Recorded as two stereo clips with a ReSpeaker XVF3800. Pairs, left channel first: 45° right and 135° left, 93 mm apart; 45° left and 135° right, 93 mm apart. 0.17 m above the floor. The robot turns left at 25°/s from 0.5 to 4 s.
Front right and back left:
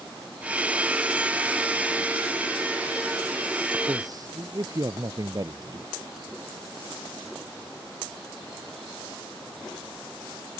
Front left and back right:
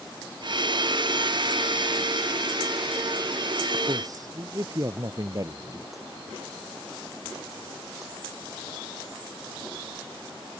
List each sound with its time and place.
3.9 s a man speaking: 175° right; by 5.9 s straight behind